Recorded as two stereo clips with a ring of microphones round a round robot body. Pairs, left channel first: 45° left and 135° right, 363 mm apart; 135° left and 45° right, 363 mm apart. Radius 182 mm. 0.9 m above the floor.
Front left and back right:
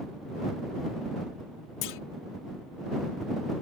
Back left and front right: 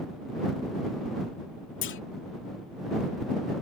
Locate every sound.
1.8 s a clunk: 80° left